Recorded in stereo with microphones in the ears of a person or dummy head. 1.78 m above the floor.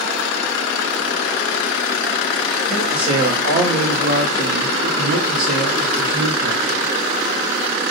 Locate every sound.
2.7 s a man speaking: 25° right (ahead or behind), 0.8 m; by 6.9 s 55° right (ahead or behind), 2 m